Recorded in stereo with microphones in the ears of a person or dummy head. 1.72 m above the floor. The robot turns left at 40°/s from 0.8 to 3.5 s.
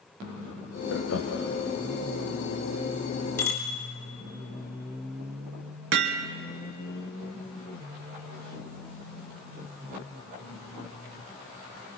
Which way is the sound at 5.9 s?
65° right (ahead or behind).